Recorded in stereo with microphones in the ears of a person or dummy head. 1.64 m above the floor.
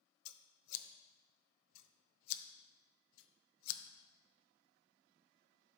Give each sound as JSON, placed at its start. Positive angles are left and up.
{"t": 0.2, "sound": "scissors", "side_deg": 75, "distance_m": 0.8}